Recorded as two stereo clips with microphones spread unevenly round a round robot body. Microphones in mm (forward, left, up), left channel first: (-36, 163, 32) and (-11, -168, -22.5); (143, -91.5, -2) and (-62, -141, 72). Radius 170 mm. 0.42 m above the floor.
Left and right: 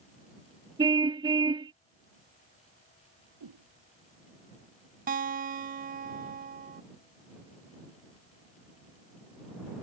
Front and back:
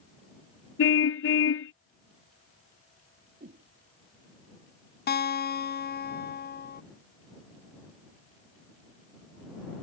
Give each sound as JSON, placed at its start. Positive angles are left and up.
{"t": 0.8, "sound": "a car horn", "azimuth_deg": -5}
{"t": 3.4, "sound": "a whoosh", "azimuth_deg": -120}
{"t": 5.1, "sound": "a guitar", "azimuth_deg": -25}